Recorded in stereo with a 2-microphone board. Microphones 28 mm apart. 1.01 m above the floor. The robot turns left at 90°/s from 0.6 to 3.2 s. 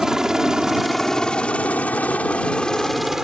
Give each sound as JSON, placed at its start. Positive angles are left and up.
{"t": 0.0, "sound": "a helicopter", "side_deg": -20}